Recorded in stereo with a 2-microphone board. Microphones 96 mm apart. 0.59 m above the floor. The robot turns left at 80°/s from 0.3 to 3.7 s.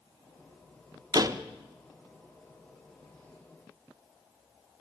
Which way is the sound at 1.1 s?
45° right (ahead or behind).